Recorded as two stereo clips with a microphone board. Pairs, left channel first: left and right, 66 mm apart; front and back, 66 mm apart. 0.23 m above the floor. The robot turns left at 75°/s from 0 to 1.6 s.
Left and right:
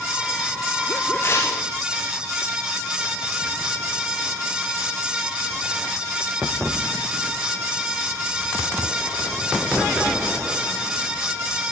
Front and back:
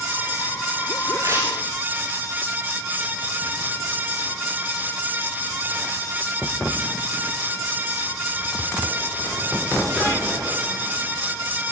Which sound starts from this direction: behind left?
Tearing paper, at 1.2 s.